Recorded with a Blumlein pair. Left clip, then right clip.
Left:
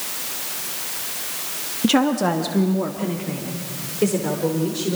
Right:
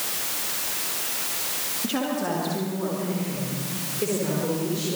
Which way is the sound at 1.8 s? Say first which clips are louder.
Left 9 dB; 60° left.